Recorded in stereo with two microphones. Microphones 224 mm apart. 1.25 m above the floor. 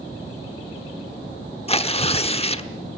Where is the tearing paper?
25° left (ahead or behind), 0.9 m.